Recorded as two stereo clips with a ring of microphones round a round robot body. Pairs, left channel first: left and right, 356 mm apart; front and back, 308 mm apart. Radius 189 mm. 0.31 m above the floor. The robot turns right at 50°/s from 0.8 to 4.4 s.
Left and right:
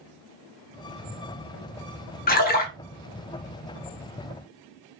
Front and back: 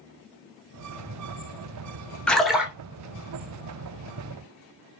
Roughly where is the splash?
Left.